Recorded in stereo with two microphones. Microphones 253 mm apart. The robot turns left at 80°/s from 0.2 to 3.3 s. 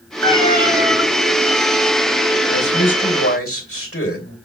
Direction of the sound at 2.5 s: 130° left.